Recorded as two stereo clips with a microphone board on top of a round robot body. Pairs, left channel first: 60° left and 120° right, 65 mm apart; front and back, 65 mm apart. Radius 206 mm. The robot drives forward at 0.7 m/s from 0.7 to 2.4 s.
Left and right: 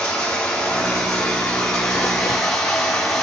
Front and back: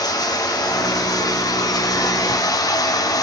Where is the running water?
20° right, 5.5 m; by 3.2 s 25° right, 4.5 m.